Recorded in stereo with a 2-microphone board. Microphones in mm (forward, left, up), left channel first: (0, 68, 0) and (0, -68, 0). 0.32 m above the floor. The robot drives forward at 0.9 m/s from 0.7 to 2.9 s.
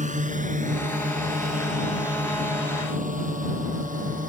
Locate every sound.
0.0 s a drone: 65° right (ahead or behind); by 4.3 s 75° right (ahead or behind)